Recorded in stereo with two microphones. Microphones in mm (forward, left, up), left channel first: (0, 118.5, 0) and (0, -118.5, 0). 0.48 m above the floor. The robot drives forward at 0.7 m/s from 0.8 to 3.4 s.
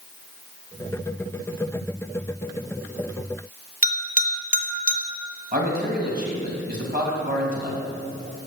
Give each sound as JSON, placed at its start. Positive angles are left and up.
{"t": 3.8, "sound": "a bell", "side_deg": 35, "distance_m": 0.8}
{"t": 5.5, "sound": "a man speaking", "side_deg": -40, "distance_m": 2.5}